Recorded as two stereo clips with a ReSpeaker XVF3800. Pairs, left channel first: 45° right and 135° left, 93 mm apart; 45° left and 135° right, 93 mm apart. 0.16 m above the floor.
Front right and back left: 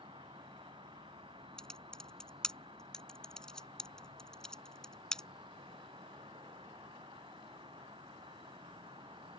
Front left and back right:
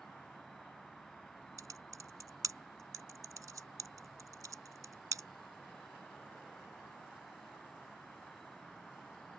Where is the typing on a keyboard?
125° right.